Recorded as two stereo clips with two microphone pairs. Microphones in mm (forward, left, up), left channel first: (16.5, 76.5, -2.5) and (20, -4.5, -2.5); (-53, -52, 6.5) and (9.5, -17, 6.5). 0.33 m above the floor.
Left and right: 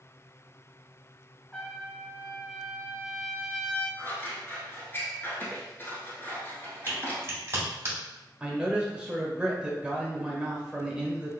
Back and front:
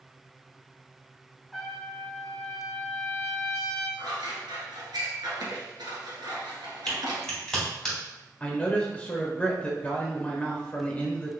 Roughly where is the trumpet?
Behind left.